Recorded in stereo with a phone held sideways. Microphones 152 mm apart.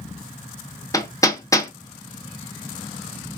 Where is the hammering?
20° left (ahead or behind), 1.0 m.